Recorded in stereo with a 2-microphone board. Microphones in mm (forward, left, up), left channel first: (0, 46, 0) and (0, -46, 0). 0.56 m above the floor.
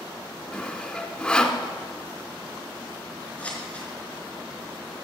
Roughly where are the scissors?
Centre.